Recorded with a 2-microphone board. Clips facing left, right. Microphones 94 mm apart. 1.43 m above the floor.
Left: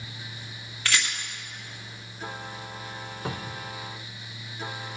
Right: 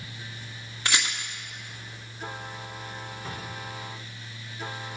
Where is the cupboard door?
60° left (ahead or behind), 0.8 m.